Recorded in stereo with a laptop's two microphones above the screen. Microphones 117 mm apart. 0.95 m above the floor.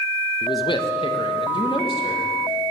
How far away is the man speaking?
About 0.6 m.